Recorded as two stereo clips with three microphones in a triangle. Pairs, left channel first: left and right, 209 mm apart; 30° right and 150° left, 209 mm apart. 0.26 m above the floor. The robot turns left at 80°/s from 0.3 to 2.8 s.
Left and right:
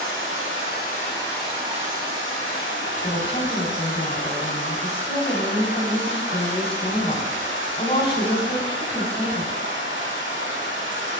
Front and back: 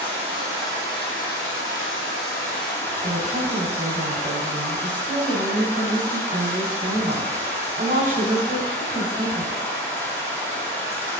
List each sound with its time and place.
0.0 s running water: 90° left, 3.5 m; by 11.2 s 110° right, 3.5 m
3.0 s a woman speaking: 135° left, 1.3 m